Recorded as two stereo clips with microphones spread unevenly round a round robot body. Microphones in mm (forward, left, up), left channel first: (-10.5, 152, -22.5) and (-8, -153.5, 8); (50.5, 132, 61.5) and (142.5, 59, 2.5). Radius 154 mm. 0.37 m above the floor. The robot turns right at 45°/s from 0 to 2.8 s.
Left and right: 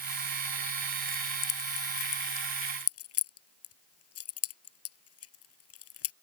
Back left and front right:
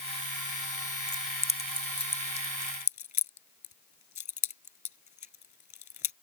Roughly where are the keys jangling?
Ahead left.